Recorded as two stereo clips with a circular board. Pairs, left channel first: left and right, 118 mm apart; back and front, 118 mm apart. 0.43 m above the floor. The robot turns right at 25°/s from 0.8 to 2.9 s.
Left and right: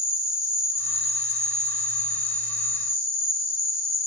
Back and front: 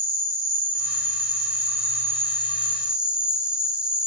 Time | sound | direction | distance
0.0 | an insect | 25° left | 1.9 m